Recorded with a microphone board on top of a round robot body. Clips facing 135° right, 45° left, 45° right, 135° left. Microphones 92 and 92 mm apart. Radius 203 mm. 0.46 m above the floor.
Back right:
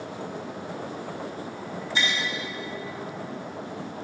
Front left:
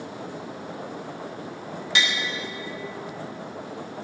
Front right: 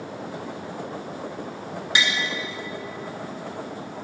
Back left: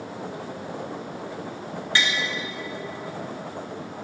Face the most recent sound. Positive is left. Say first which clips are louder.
# front left 2 dB, even
turn(degrees=30)